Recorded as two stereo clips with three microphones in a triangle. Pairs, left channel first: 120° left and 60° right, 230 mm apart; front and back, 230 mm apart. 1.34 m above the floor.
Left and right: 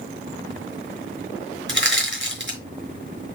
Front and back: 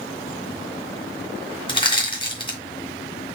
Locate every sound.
1.7 s crushing: 60° right, 1.8 m